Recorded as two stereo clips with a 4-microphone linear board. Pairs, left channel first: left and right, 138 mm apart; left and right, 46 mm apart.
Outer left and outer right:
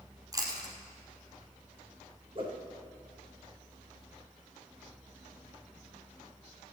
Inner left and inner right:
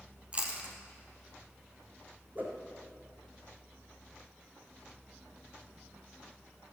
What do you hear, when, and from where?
0.3 s chewing: 25° right (ahead or behind), 2.5 m
2.4 s a whoosh: 40° right (ahead or behind), 3 m